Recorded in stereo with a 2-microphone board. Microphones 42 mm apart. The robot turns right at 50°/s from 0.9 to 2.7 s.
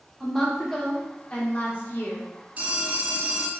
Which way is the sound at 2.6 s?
35° right (ahead or behind).